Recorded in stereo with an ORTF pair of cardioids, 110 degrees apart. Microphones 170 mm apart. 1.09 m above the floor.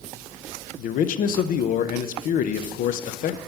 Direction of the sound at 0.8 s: 60° left.